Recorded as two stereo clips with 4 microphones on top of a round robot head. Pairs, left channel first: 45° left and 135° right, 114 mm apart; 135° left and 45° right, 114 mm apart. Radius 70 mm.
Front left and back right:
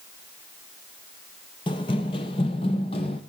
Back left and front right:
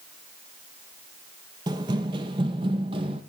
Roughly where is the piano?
No piano in this recording.